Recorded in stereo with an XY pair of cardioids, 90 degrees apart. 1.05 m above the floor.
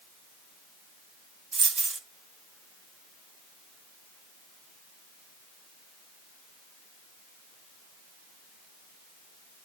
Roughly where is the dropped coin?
Ahead right.